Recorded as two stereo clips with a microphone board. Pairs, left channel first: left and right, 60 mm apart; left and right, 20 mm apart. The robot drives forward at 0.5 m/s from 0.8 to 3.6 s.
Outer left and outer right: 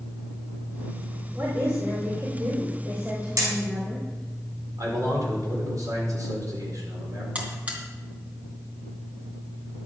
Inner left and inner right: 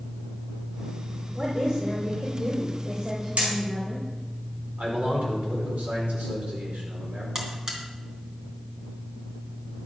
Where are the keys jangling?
I don't hear keys jangling.